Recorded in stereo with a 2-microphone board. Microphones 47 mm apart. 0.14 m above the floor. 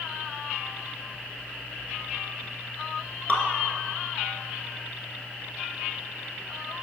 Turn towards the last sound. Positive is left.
turn(degrees=35)  # may be behind; listen again after turning